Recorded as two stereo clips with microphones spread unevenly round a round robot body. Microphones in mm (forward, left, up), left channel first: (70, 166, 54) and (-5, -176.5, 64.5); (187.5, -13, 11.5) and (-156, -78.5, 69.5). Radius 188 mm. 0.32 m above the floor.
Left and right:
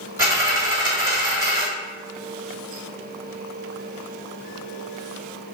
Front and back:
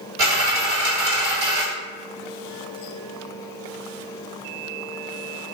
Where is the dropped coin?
175° left, 1.4 m.